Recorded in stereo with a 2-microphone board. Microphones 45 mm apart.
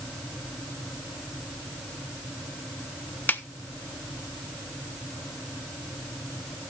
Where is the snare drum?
45° left (ahead or behind), 0.7 m.